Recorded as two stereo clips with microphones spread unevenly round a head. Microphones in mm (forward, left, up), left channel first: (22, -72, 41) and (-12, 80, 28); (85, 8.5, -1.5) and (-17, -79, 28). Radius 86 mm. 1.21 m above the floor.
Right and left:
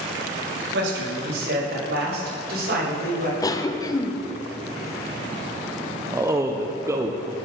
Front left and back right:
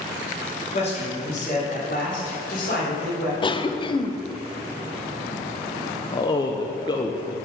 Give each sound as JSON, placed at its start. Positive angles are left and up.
{"t": 0.7, "sound": "a man speaking", "azimuth_deg": 95, "distance_m": 2.0}
{"t": 3.4, "sound": "a cough", "azimuth_deg": -10, "distance_m": 0.8}
{"t": 6.1, "sound": "a man speaking", "azimuth_deg": 45, "distance_m": 0.7}